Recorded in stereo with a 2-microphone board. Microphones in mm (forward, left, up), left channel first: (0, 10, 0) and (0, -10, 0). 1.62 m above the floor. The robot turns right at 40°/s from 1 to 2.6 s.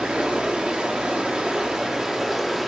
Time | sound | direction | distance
0.0 | running water | 80° right | 0.9 m